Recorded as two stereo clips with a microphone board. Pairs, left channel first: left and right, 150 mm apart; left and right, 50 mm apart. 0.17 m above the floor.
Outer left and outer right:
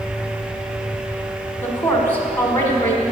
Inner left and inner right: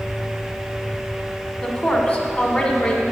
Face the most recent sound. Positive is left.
turn(degrees=15)  # may be behind; listen again after turning